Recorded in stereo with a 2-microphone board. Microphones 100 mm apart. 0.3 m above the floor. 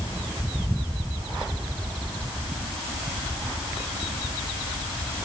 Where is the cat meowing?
I don't hear a cat meowing.